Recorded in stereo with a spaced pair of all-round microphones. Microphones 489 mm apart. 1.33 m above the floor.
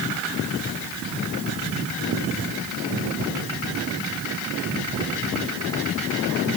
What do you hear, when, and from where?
Only background noise.